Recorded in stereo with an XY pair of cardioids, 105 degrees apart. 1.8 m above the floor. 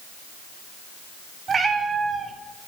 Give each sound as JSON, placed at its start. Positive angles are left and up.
{"t": 1.5, "sound": "a cat meowing", "azimuth_deg": -40, "distance_m": 3.5}